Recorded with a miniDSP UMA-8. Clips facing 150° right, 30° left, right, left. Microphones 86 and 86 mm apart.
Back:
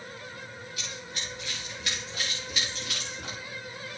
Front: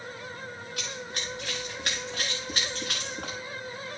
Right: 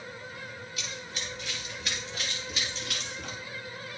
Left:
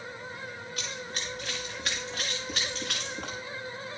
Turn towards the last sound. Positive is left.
turn(degrees=75)